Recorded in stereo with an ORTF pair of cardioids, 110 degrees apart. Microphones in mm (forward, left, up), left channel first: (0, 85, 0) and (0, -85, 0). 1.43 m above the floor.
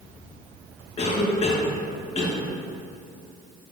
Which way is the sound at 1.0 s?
40° left.